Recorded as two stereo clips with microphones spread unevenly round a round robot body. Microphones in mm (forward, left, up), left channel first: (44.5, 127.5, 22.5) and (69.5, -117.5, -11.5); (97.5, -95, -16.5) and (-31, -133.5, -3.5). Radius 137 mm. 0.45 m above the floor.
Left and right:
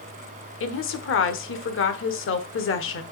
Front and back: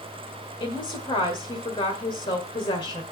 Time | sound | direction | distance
0.6 | a woman speaking | 70° left | 1.4 m